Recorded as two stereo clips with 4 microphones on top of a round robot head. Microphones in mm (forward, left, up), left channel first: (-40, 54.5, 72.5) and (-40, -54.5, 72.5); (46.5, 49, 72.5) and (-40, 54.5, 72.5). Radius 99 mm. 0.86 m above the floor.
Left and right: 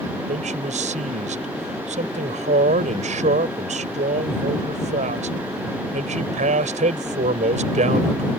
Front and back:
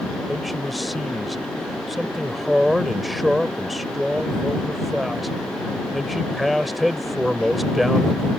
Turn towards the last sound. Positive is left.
turn(degrees=-95)